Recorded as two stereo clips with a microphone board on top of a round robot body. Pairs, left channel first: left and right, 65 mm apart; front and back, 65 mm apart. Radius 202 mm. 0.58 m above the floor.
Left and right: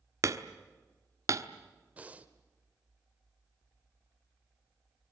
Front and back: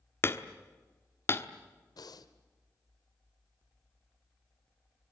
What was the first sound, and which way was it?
Hammering, 50° right.